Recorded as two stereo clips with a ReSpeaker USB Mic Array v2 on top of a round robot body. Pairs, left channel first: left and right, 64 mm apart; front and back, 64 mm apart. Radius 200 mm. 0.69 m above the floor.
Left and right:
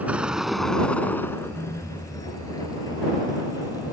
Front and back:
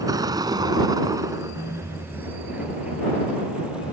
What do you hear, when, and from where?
0.0 s a vehicle: 155° right; by 4.0 s 105° left